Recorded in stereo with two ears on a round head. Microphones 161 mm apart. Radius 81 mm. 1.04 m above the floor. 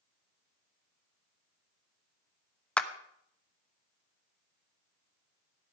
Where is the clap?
5° left (ahead or behind), 0.9 m.